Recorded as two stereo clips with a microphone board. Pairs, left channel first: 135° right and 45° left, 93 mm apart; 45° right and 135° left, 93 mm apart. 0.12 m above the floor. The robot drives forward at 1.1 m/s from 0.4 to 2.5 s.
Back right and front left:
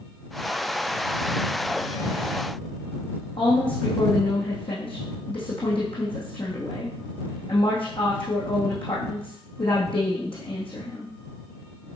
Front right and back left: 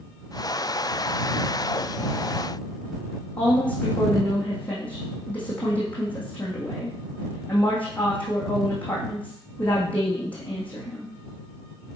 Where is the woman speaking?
120° right, 5.5 m.